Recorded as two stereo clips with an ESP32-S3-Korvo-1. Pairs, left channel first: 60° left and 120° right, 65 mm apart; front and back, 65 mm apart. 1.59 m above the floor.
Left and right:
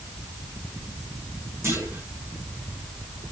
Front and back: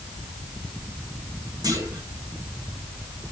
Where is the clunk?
165° right, 4.5 m.